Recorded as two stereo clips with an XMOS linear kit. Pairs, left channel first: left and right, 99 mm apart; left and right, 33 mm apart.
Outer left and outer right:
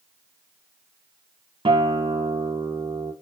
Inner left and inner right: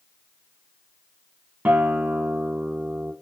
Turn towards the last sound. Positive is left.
turn(degrees=-70)  # may be behind; listen again after turning